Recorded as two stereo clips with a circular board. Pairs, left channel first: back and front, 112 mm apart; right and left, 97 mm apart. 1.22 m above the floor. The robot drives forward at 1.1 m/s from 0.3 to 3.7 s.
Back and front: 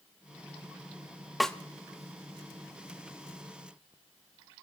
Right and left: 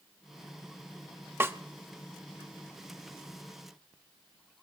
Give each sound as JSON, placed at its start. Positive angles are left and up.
{"t": 1.4, "sound": "a snare drum", "azimuth_deg": 85, "distance_m": 0.6}